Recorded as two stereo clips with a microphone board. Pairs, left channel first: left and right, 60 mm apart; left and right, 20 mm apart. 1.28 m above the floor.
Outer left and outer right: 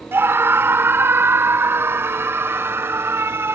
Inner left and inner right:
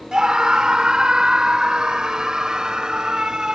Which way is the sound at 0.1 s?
40° right (ahead or behind).